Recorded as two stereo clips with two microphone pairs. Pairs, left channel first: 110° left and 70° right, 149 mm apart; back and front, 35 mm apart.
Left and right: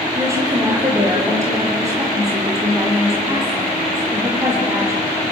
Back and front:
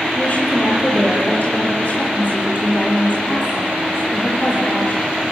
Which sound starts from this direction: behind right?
A woman speaking, at 0.1 s.